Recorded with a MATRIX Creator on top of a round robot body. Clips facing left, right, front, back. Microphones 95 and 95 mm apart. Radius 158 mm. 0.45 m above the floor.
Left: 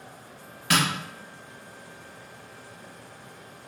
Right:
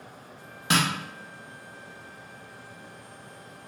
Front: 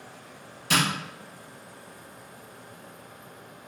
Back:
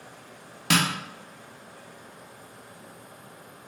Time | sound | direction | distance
0.7 | tapping | 155° right | 0.6 m